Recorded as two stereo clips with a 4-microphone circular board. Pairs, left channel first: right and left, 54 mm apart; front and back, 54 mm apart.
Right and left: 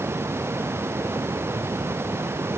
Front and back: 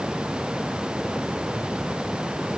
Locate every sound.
Only background noise.